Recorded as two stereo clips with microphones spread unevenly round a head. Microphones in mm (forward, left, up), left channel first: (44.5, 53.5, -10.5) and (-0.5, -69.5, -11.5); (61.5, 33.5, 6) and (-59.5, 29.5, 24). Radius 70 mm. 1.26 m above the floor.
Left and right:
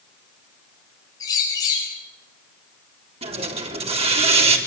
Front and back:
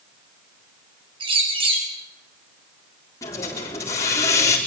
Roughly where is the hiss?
Ahead right.